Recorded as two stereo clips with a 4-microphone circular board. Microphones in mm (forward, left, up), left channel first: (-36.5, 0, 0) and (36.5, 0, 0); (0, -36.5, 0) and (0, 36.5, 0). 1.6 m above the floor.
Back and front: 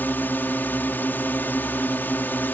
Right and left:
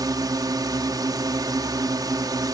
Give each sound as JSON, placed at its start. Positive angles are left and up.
{"t": 0.0, "sound": "a drone", "azimuth_deg": 120}